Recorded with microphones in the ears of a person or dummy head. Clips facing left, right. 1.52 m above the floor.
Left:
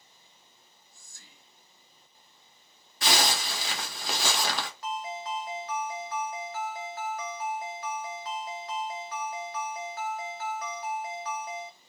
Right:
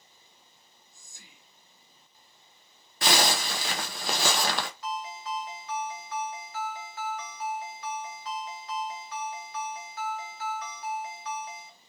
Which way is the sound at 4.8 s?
45° left (ahead or behind).